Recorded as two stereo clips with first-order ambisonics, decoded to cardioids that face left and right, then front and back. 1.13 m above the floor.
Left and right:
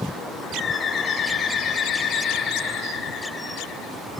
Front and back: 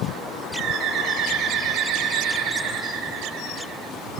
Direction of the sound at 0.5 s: 145° left.